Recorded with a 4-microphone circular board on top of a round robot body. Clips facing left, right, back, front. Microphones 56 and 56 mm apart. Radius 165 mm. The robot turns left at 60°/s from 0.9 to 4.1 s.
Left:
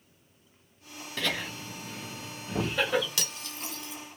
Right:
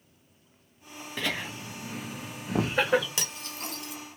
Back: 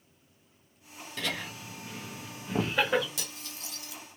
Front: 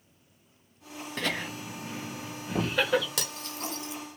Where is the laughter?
15° right, 1.1 m; by 3.1 s 130° right, 1.1 m.